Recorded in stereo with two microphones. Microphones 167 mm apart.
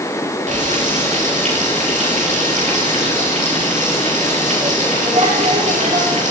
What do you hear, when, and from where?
0.5 s frying: 45° right (ahead or behind), 7.5 m